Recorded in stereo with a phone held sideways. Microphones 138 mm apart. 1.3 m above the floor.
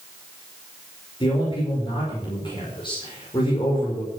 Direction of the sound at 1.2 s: 35° left (ahead or behind).